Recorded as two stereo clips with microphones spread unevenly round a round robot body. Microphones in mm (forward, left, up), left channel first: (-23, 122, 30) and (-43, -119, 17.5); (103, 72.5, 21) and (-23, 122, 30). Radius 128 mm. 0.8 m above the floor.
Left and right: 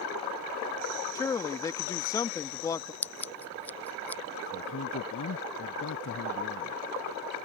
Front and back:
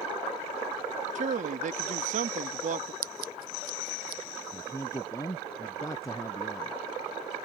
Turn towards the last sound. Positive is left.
turn(degrees=45)